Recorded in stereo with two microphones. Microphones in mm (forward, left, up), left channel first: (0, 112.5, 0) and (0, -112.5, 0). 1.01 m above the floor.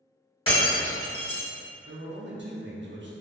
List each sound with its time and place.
0.5 s breaking glass: 25° left (ahead or behind), 1.2 m
1.9 s a man speaking: 55° right (ahead or behind), 0.6 m